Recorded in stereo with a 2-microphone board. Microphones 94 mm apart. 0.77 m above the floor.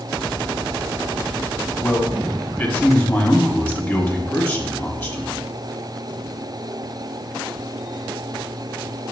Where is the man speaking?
30° left (ahead or behind), 1.2 m.